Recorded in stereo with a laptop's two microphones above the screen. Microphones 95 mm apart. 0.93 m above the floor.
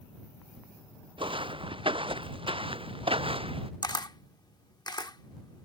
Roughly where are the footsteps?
Right.